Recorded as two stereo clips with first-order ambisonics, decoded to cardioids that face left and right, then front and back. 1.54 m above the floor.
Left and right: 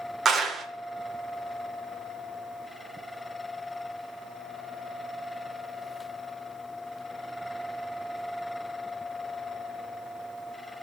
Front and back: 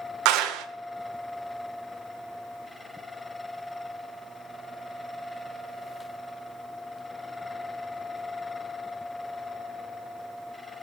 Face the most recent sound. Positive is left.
turn(degrees=-155)